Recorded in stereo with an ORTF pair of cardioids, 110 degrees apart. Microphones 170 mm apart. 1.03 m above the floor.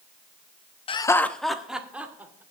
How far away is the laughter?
About 0.7 m.